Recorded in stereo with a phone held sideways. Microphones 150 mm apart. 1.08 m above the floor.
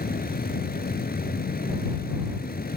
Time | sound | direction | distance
0.0 | a fan | 90° left | ?